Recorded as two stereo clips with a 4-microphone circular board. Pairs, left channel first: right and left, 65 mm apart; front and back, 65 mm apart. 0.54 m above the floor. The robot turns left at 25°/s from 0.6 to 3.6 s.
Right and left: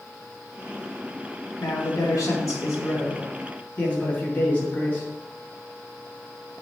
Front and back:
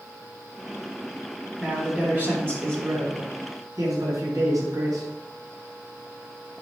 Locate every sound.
1.6 s a man speaking: 105° right, 3.5 m; by 5.1 s 155° right, 3.5 m